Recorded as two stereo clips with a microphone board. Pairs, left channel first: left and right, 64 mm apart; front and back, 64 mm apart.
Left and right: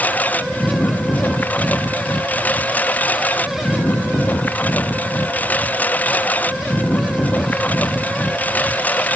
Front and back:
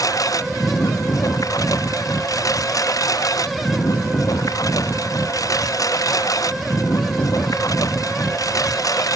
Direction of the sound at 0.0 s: 25° left.